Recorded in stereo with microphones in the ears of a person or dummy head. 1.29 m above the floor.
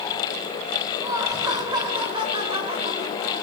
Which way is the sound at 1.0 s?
15° right (ahead or behind).